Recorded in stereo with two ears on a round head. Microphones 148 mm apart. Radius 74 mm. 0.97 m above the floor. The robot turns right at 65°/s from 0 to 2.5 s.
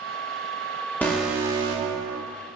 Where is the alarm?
170° left, 2.5 m; by 2.2 s 110° right, 2.5 m.